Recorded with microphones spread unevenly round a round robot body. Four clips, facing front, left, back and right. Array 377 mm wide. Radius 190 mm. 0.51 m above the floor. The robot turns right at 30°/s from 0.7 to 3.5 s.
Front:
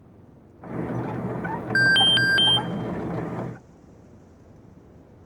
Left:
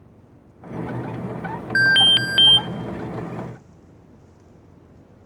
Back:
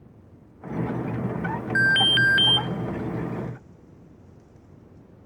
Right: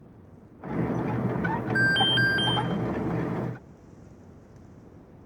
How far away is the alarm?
About 0.5 m.